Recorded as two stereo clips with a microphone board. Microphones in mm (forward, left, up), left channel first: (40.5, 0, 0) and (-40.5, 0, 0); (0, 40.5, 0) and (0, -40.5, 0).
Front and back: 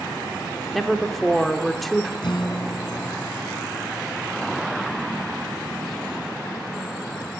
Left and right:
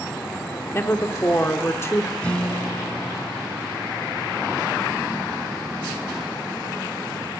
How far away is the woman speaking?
About 0.9 m.